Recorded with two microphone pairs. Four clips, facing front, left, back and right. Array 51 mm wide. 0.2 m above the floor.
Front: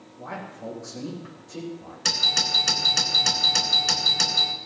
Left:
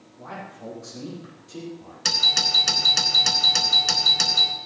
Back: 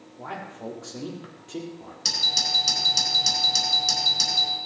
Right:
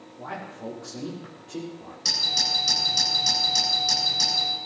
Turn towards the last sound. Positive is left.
turn(degrees=50)